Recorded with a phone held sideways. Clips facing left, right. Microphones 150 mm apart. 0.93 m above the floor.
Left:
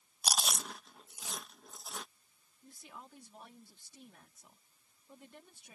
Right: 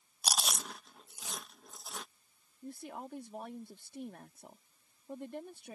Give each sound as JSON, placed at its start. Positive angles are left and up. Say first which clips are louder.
{"t": 0.2, "sound": "chewing", "louder": "even", "side_deg": 0}
{"t": 2.6, "sound": "a woman speaking", "louder": "right 10 dB", "side_deg": -60}